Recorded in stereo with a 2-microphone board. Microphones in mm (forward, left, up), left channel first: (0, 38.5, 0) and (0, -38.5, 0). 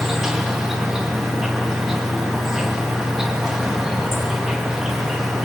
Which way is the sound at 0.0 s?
5° right (ahead or behind).